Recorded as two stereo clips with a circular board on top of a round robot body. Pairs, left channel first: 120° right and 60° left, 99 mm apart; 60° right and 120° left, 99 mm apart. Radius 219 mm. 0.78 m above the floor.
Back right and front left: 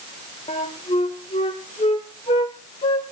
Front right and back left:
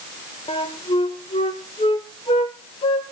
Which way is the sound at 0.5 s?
95° right.